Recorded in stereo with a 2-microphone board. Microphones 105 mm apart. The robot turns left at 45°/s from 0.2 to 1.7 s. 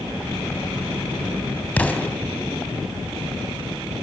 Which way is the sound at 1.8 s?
15° left (ahead or behind).